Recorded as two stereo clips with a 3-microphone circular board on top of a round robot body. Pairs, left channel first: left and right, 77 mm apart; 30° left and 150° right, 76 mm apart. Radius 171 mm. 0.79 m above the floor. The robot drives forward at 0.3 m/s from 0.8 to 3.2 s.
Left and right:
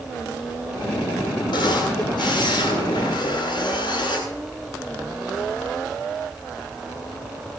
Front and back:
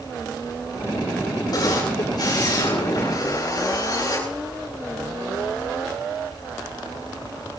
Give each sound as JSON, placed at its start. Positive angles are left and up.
{"t": 1.5, "sound": "a camera shutter", "azimuth_deg": 70, "distance_m": 9.5}